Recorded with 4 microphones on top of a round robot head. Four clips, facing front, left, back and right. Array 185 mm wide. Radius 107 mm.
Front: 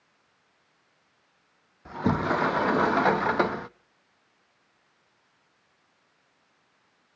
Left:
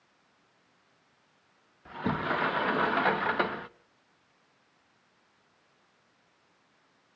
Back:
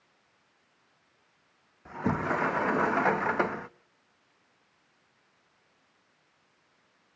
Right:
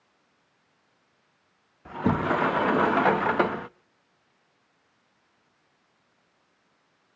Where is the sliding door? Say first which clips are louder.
Right 6 dB, front 4 dB; 65° right, 0.5 m.